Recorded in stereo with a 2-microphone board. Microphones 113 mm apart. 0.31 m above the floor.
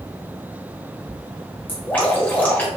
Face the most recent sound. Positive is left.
turn(degrees=15)  # may be behind; listen again after turning